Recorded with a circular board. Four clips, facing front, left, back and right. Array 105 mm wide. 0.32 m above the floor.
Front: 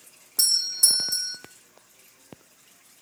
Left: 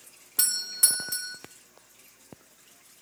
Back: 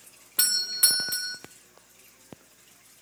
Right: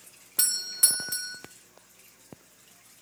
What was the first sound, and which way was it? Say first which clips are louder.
A doorbell: left 1 dB, back 6 dB; 175° right.